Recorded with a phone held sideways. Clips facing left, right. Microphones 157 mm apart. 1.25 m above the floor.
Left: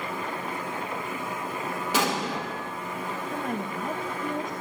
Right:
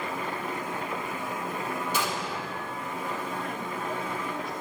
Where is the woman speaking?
45° left (ahead or behind), 1.3 m.